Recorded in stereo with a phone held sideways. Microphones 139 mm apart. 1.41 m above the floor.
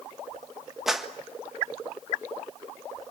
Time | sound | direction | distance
0.9 | a clap | centre (ahead or behind) | 1.5 m